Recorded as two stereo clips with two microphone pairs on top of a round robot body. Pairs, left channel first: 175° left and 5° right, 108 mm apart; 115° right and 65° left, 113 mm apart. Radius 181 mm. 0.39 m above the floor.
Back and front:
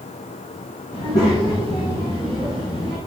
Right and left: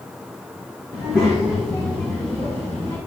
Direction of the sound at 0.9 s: 155° left.